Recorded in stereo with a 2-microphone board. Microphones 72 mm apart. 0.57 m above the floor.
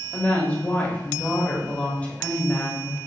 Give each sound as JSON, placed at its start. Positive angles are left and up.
{"t": 0.1, "sound": "a woman speaking", "side_deg": 20, "distance_m": 0.9}